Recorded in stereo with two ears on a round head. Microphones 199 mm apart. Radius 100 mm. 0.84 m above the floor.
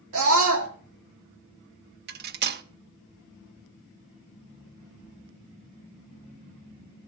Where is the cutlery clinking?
45° right (ahead or behind), 0.6 m.